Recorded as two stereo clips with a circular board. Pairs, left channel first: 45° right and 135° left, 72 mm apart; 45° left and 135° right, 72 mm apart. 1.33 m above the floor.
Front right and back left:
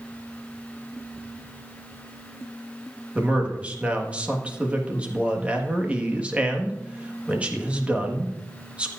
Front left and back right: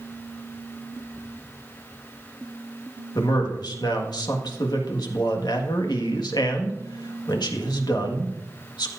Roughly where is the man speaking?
Ahead left.